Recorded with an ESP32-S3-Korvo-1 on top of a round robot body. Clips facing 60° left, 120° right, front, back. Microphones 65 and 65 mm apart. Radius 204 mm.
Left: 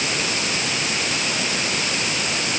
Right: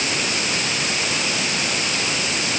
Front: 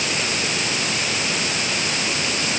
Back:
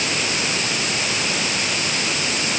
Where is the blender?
I don't hear a blender.